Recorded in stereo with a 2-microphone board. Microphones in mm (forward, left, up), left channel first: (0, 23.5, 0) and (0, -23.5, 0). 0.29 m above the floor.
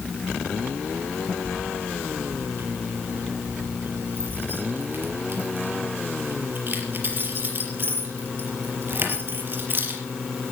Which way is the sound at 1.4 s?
45° right (ahead or behind).